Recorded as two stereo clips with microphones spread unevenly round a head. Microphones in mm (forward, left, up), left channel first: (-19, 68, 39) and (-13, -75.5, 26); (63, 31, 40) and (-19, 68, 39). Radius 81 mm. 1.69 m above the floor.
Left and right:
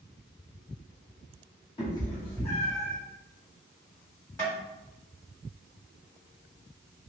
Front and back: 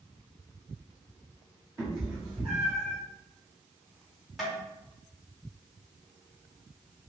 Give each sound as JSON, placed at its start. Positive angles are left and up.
{"t": 1.8, "sound": "a cat meowing", "azimuth_deg": 110, "distance_m": 1.1}
{"t": 4.4, "sound": "tapping", "azimuth_deg": 70, "distance_m": 1.4}